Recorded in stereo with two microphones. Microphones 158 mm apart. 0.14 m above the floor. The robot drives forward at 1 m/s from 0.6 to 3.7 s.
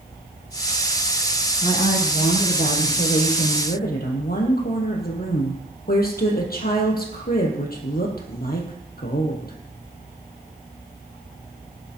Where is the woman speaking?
45° left (ahead or behind), 4.5 m; by 9.6 s 65° left (ahead or behind), 3.5 m.